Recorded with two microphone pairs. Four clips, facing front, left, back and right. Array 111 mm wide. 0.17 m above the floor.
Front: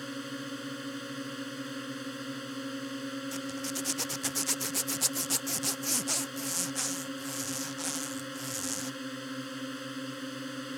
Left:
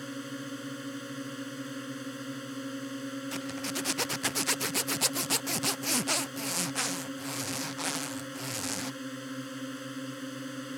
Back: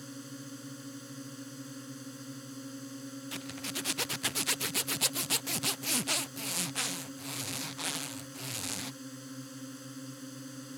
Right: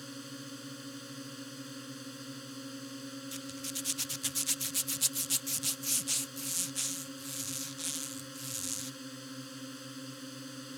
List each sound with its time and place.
0.0 s a drone: 35° left
3.3 s a zipper: 95° left